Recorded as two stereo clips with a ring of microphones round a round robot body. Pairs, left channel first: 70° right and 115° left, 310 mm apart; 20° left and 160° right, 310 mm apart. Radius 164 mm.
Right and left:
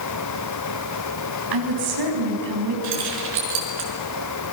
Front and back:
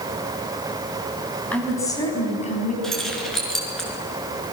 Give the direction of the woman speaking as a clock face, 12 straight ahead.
8 o'clock.